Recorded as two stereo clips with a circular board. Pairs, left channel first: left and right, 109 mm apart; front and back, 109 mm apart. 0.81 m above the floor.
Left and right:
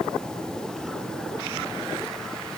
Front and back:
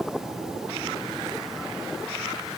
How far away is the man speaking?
No man speaking in this recording.